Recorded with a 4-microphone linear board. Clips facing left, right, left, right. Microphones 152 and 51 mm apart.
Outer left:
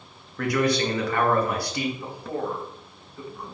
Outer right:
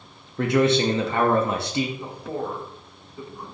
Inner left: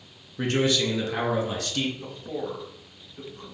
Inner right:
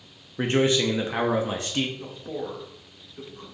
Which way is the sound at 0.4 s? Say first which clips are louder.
Outer right 4 dB, inner right 2 dB; 25° right (ahead or behind).